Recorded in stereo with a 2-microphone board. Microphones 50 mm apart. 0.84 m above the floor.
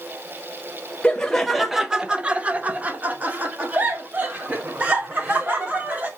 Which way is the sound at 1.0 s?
15° left (ahead or behind).